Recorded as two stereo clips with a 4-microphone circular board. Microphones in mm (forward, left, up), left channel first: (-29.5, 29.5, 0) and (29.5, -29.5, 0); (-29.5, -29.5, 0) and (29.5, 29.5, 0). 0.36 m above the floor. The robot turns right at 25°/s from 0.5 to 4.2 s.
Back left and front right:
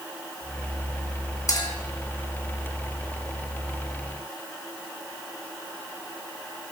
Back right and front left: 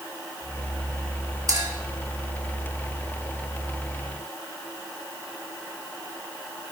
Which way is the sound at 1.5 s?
85° left.